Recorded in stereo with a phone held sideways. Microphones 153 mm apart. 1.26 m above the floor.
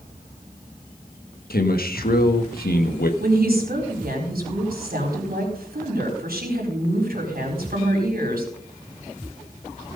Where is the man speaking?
80° left, 1.5 m.